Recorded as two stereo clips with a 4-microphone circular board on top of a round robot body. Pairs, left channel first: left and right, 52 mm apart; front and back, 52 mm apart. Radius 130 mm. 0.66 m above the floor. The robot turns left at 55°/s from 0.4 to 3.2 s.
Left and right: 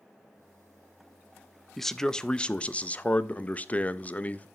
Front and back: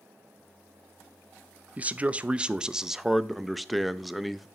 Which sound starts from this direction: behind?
A man speaking, at 1.8 s.